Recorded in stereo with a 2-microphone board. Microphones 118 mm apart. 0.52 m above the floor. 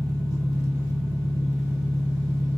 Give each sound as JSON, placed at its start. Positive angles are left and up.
{"t": 0.0, "sound": "an engine running", "side_deg": -40, "distance_m": 0.9}